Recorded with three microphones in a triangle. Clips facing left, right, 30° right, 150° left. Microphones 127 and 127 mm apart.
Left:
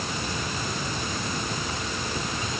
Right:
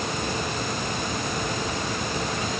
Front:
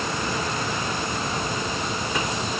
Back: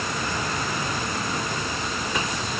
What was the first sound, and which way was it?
Only background noise.